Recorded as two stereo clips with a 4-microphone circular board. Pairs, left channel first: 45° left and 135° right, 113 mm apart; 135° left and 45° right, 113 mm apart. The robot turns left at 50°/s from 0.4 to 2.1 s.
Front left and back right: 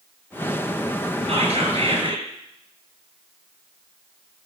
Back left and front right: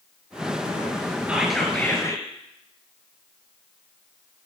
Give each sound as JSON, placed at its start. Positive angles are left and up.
{"t": 1.3, "sound": "whispering", "azimuth_deg": -125, "distance_m": 3.5}